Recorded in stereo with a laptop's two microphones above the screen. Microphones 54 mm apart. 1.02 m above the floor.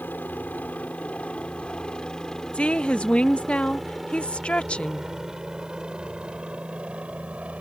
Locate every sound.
0.0 s a helicopter: 35° left (ahead or behind); by 7.6 s 25° right (ahead or behind)
2.5 s a woman speaking: 20° left (ahead or behind)